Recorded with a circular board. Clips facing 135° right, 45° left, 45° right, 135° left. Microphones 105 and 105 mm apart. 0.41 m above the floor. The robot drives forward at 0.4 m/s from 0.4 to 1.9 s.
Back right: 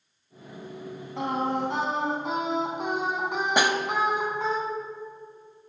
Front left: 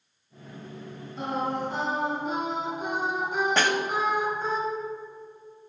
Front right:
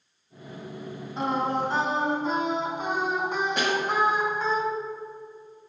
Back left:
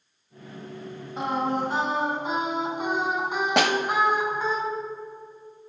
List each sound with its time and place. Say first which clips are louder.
1.2 s singing: back right 2 dB, even; 140° right, 3 m
3.6 s a snare drum: back right 3 dB, back left 7 dB; 150° left, 0.7 m